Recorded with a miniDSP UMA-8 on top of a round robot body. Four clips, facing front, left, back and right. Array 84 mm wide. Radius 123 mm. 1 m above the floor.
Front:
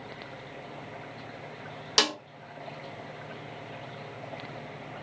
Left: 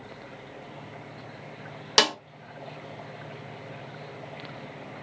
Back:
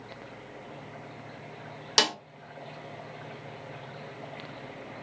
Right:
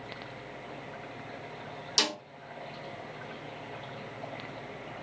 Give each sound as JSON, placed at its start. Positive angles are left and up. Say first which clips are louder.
{"t": 2.0, "sound": "a snare drum", "louder": "left 9 dB, back 1 dB", "azimuth_deg": 95, "distance_m": 0.6}